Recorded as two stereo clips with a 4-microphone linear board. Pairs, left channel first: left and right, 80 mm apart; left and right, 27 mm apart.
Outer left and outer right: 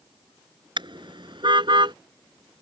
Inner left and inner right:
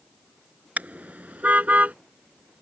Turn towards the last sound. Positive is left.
turn(degrees=-85)